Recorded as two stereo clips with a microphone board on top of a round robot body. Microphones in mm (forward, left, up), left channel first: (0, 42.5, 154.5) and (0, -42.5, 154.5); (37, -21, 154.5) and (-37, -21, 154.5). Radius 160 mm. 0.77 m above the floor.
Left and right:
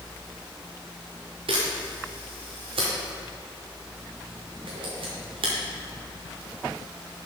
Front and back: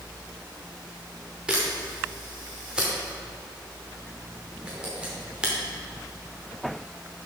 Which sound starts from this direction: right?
A camera shutter, at 1.5 s.